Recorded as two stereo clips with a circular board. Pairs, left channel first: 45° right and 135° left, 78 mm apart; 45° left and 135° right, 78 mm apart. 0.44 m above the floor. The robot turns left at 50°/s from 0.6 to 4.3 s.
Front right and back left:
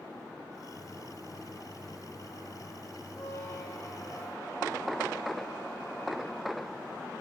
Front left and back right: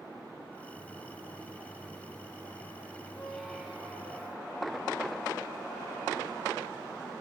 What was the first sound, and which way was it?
A squeak, 25° right.